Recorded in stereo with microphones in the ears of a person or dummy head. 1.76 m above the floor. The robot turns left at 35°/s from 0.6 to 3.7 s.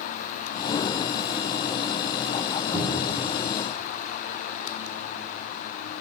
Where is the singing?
No singing in this recording.